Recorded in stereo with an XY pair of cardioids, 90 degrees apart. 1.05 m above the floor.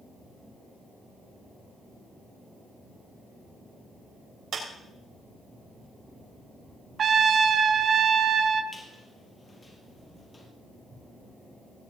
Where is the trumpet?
55° right, 1.2 m.